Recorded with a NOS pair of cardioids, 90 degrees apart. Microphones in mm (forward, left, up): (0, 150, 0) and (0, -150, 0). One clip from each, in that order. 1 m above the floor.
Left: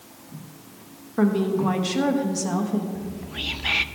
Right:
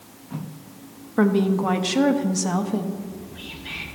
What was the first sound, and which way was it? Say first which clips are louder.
A woman speaking: right 2 dB; 20° right.